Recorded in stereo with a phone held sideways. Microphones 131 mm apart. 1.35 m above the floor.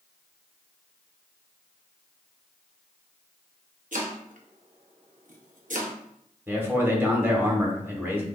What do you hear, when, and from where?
3.9 s chopping: 80° right, 0.6 m
6.5 s a man speaking: 15° right (ahead or behind), 1.1 m